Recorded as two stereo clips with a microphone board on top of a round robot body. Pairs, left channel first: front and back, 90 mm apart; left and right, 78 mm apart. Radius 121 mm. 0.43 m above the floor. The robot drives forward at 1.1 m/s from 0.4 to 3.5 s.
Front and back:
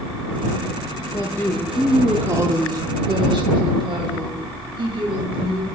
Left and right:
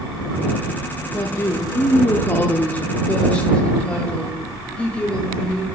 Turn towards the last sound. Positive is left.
turn(degrees=165)